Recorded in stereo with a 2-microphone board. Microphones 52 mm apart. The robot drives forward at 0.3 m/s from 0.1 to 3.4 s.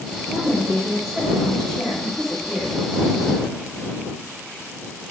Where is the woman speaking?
Centre (ahead or behind), 1.4 m.